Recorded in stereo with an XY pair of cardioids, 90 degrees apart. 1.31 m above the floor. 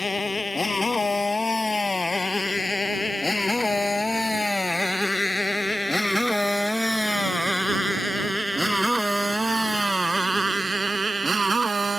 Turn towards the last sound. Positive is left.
turn(degrees=-35)